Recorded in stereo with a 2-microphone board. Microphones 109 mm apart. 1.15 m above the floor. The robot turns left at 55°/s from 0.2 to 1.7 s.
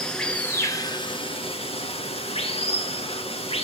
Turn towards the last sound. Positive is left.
turn(degrees=90)